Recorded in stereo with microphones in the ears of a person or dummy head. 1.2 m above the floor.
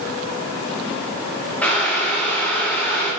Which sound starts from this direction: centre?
Boiling, at 1.6 s.